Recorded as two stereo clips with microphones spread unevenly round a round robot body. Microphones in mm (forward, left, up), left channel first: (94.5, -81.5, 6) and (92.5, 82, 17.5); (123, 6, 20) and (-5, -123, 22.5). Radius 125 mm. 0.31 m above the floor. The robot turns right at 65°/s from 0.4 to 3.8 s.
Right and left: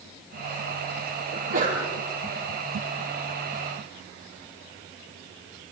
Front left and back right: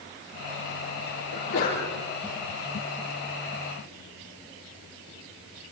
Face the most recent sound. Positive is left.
turn(degrees=-120)